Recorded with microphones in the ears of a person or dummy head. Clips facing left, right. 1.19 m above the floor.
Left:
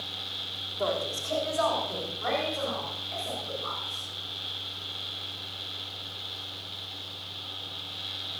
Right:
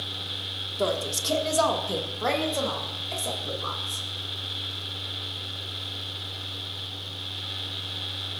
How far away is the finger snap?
I don't hear a finger snap.